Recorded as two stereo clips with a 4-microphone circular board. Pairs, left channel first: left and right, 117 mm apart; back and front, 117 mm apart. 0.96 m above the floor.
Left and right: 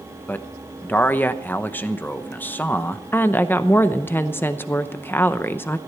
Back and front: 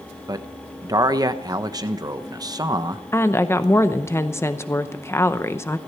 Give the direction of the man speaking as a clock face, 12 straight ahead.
11 o'clock.